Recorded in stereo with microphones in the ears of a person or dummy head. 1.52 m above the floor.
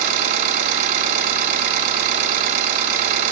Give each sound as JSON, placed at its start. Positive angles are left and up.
{"t": 0.0, "sound": "an engine running", "side_deg": -50, "distance_m": 2.0}